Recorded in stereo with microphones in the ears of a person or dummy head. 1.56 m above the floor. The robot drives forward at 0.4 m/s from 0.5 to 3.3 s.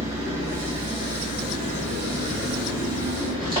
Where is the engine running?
30° right (ahead or behind), 3 m; by 3.6 s 20° right (ahead or behind), 4 m.